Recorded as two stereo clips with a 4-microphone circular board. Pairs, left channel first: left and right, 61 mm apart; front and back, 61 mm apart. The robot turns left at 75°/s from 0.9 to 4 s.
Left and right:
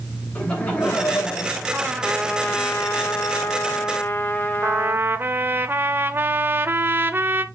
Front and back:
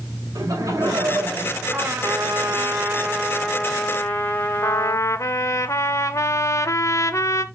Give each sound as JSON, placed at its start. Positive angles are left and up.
{"t": 0.3, "sound": "laughter", "azimuth_deg": 160, "distance_m": 5.5}
{"t": 1.7, "sound": "a trumpet", "azimuth_deg": -145, "distance_m": 1.3}
{"t": 4.6, "sound": "a trumpet", "azimuth_deg": -35, "distance_m": 0.6}